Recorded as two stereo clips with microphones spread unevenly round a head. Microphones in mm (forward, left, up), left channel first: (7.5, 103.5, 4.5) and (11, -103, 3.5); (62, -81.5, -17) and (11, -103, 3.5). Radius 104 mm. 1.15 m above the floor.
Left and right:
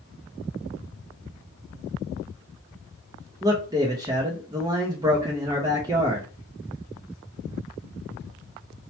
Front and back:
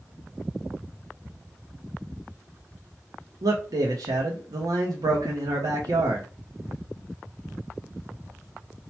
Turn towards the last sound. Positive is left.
turn(degrees=-160)